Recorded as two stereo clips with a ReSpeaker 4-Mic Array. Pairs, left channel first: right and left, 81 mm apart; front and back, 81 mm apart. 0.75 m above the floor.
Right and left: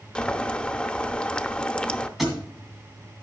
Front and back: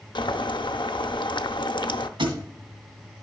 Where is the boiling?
15° right, 0.6 m.